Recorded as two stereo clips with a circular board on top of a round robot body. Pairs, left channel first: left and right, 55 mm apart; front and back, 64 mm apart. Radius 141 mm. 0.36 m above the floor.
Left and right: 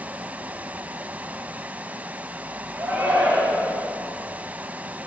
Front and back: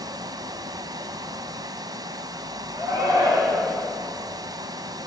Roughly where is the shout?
Behind.